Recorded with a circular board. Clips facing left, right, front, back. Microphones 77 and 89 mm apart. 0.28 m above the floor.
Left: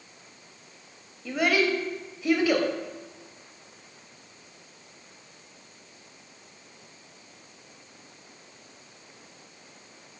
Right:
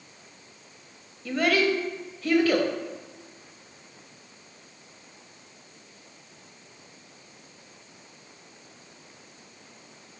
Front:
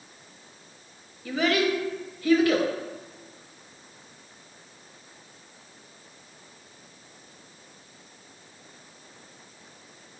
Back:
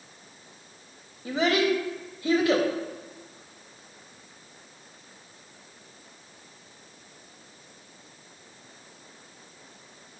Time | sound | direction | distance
1.2 | a child speaking | 160° left | 0.5 m